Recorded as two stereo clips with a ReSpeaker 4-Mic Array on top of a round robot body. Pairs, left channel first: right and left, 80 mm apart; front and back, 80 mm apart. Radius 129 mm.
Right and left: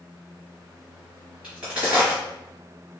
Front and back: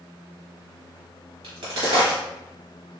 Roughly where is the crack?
Behind.